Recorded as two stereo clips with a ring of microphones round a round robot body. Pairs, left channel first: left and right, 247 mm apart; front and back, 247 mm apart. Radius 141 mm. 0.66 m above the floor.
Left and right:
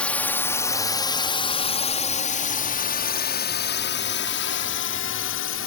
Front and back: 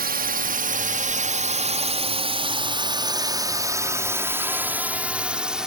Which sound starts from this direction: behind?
A drone, at 0.0 s.